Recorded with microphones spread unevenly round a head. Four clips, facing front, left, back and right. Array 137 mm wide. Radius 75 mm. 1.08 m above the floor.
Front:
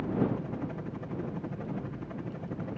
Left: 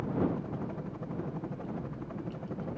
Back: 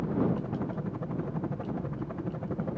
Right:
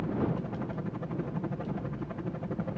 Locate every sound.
0.0 s a helicopter: 145° right